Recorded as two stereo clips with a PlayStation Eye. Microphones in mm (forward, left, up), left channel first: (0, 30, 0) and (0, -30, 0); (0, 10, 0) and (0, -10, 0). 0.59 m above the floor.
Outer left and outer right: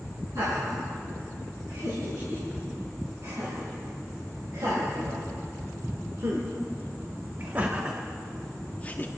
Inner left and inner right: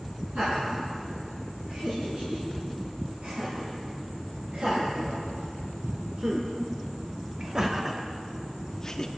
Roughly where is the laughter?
Right.